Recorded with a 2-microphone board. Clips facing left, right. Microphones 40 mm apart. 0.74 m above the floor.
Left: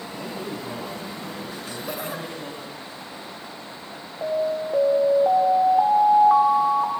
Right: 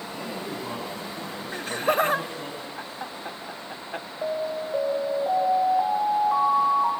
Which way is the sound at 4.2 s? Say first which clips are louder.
Left 5 dB; 50° left (ahead or behind).